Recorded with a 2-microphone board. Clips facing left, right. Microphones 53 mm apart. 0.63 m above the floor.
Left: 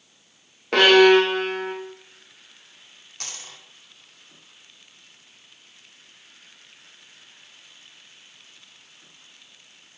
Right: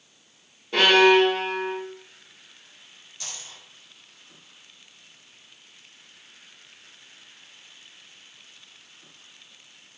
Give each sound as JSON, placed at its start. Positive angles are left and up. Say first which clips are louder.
{"t": 0.7, "sound": "a violin", "louder": "left 3 dB", "side_deg": 75, "distance_m": 1.1}
{"t": 3.2, "sound": "a dropped coin", "louder": "left 2 dB", "side_deg": 65, "distance_m": 1.2}